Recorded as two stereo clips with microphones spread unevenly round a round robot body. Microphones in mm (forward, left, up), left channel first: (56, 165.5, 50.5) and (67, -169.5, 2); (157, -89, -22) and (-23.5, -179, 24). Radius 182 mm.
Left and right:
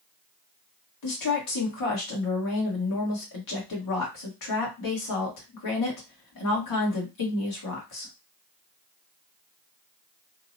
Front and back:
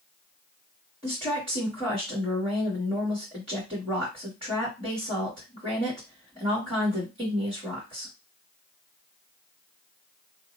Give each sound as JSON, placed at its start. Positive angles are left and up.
{"t": 1.0, "sound": "a woman speaking", "azimuth_deg": 130, "distance_m": 1.2}